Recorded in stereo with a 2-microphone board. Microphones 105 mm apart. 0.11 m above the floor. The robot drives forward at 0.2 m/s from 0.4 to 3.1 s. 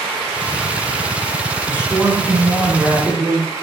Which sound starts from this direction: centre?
A man speaking, at 1.7 s.